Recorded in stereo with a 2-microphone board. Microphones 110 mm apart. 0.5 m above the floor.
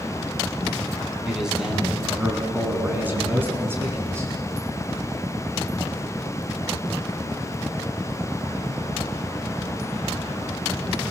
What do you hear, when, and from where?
1.2 s a man speaking: 5° right (ahead or behind), 4 m; by 4.3 s 25° right (ahead or behind), 5 m